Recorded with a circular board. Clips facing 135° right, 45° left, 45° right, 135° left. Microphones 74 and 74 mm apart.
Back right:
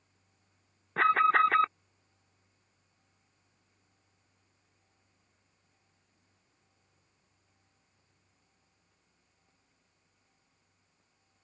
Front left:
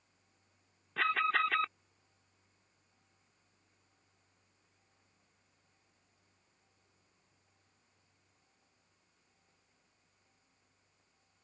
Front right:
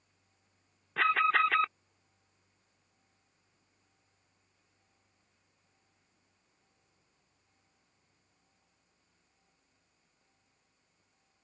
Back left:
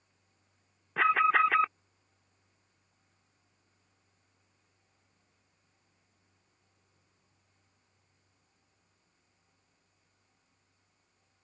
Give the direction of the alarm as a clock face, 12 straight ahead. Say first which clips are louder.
Back right 8 dB, back left 2 dB; 5 o'clock.